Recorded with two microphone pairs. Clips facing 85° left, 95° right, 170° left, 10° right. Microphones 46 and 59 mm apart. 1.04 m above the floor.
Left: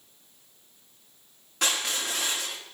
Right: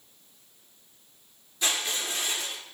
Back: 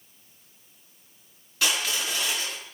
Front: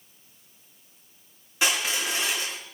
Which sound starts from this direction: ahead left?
Crushing, at 1.6 s.